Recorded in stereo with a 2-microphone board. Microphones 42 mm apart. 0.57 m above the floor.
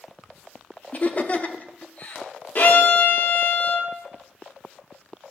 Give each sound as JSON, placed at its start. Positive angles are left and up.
{"t": 0.9, "sound": "laughter", "side_deg": 35, "distance_m": 0.7}
{"t": 2.5, "sound": "a violin", "side_deg": 45, "distance_m": 1.0}